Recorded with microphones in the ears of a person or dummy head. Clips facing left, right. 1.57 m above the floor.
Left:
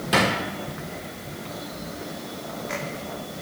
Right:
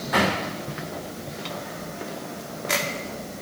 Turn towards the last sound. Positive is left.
turn(degrees=35)  # may be behind; listen again after turning